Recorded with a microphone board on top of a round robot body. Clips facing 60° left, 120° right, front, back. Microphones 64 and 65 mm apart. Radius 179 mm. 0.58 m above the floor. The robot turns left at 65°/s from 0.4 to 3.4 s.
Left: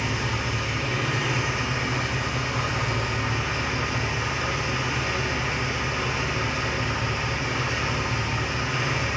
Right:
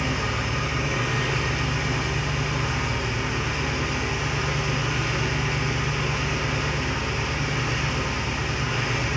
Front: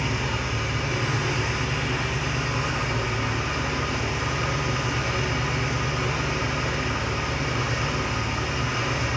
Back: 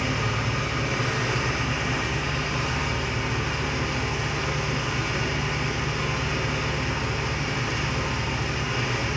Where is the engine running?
160° right, 2.5 m; by 9.2 s 5° left, 2.5 m.